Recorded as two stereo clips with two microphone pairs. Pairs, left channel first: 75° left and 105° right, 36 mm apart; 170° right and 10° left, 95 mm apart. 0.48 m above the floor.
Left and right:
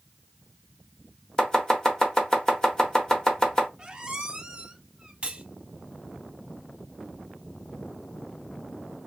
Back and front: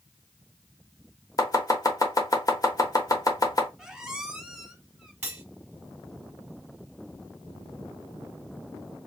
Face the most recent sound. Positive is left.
turn(degrees=-55)